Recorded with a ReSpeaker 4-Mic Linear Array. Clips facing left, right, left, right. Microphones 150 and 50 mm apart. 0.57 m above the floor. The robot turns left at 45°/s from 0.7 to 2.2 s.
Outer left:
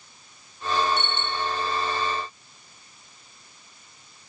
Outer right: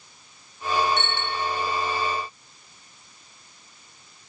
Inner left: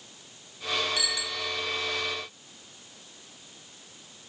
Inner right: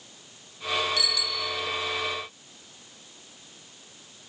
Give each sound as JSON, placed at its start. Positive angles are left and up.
{"t": 1.0, "sound": "a bicycle bell", "side_deg": 10, "distance_m": 2.5}